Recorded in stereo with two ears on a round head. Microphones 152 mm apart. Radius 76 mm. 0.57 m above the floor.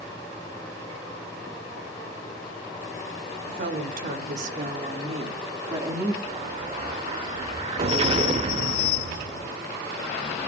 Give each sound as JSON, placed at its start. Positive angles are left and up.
{"t": 3.5, "sound": "a woman speaking", "side_deg": -55, "distance_m": 2.0}
{"t": 6.2, "sound": "an explosion", "side_deg": -35, "distance_m": 0.8}